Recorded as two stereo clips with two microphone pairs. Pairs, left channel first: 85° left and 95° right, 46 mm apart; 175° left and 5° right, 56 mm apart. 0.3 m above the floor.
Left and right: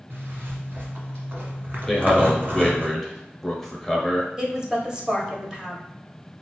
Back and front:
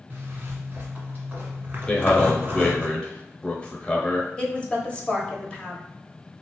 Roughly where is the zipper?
Ahead right.